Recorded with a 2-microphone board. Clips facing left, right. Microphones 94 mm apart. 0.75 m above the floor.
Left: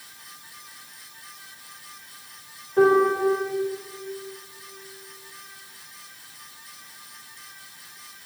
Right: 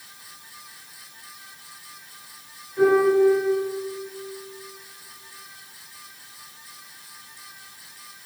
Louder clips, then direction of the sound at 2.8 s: Right 1 dB; 55° left (ahead or behind).